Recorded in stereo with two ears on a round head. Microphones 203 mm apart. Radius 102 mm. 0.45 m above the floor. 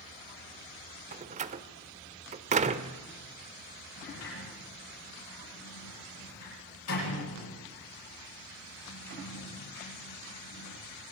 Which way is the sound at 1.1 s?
30° right (ahead or behind).